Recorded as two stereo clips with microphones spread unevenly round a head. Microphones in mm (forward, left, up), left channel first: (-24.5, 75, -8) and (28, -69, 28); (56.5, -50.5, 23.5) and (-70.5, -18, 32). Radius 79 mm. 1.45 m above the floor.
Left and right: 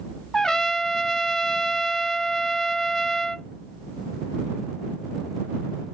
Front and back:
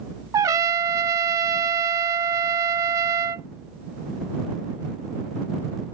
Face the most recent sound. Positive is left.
turn(degrees=-145)